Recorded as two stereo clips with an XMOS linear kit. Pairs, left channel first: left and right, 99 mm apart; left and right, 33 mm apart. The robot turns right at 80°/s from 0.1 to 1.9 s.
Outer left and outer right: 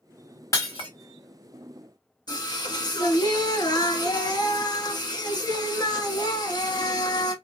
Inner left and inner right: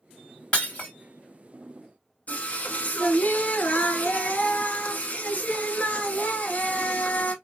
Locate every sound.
0.5 s breaking glass: 25° left (ahead or behind), 2 m; by 0.9 s 55° left (ahead or behind), 2 m
2.3 s singing: 40° left (ahead or behind), 0.7 m